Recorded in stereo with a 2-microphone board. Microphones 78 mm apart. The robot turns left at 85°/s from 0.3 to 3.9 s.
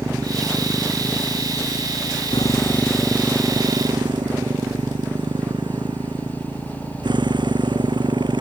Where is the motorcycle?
130° right; by 8.4 s 75° right.